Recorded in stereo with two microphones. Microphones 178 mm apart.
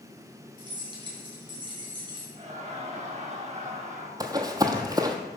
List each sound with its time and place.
0.6 s keys jangling: 25° right (ahead or behind), 2.5 m
2.4 s laughter: 40° right (ahead or behind), 1.0 m
4.2 s running footsteps: 20° right (ahead or behind), 1.0 m